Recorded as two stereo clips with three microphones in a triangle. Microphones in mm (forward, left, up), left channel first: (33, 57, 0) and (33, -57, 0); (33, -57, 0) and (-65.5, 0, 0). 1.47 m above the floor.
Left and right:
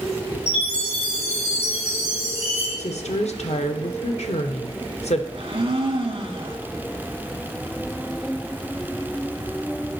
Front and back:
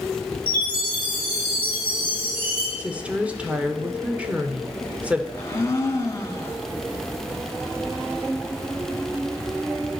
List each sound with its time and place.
0.5 s a chime: 110° left, 6 m
2.8 s a woman speaking: 70° left, 0.9 m
5.3 s a blender: 85° right, 1.4 m